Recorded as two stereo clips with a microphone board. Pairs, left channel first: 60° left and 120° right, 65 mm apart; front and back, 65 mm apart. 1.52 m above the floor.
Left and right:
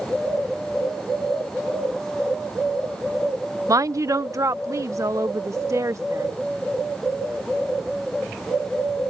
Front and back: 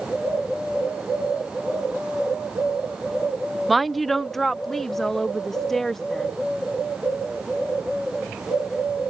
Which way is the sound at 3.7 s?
90° right.